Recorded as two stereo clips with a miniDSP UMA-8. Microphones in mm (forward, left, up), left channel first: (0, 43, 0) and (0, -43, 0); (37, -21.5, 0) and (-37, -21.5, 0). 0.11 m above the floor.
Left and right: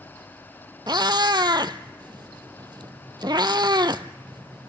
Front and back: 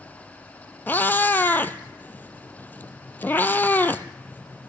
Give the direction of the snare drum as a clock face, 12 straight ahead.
I don't hear a snare drum.